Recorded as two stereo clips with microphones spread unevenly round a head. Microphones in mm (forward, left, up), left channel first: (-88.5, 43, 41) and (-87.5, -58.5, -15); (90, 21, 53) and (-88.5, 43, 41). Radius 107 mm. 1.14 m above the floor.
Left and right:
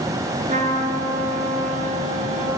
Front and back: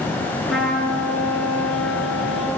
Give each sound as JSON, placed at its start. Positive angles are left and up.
{"t": 0.5, "sound": "a trumpet", "azimuth_deg": -95, "distance_m": 7.5}